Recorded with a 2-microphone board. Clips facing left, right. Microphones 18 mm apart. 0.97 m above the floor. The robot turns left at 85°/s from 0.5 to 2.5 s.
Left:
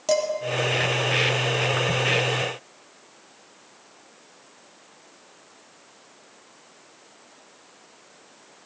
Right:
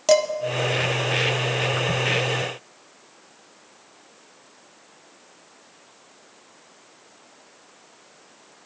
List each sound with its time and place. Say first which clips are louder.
0.1 s dishes clattering: right 5 dB; 25° right (ahead or behind), 1.0 m